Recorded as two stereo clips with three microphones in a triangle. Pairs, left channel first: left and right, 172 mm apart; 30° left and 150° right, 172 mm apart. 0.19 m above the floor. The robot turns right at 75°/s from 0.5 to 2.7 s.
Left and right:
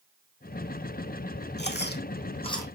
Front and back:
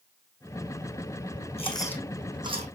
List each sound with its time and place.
1.6 s chewing: 80° left, 1.4 m; by 2.8 s 165° left, 1.4 m